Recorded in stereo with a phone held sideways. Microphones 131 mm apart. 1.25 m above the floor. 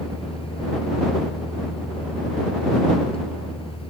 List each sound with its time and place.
0.0 s a fan: 45° left (ahead or behind)